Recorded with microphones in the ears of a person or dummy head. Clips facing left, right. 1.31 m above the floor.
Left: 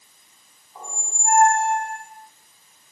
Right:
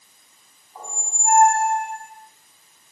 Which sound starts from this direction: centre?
A squeak, at 0.8 s.